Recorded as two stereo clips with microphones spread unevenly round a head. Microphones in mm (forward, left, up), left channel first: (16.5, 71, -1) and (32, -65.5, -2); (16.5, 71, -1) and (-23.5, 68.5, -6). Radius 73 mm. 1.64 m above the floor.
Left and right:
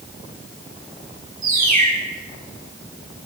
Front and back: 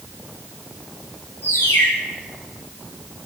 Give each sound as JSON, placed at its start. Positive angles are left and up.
{"t": 1.4, "sound": "a bird", "azimuth_deg": -55, "distance_m": 6.0}